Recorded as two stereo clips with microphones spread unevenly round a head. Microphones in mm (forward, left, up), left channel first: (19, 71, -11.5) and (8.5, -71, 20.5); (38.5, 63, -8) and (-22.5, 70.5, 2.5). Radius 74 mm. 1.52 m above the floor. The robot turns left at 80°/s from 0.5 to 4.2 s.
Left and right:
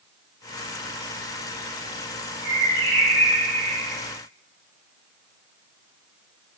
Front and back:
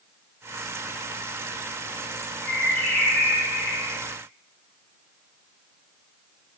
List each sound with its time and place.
2.4 s a bird: 30° right, 1.9 m; by 4.0 s 160° right, 1.9 m